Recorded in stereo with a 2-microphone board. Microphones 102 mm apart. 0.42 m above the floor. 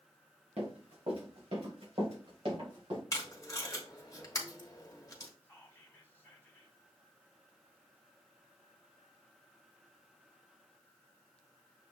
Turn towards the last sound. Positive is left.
turn(degrees=20)  # may be behind; listen again after turning